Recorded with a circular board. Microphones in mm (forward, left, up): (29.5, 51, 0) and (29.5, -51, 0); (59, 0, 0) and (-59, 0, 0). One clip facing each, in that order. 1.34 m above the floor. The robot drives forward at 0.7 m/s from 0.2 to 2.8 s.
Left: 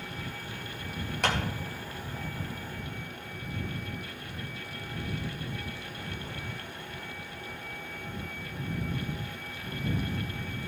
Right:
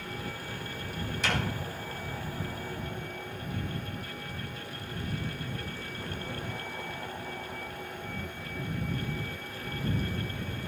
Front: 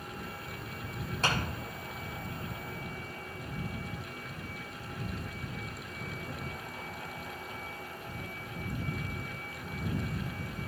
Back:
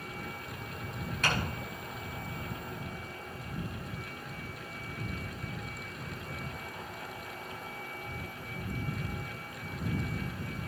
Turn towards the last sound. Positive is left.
turn(degrees=80)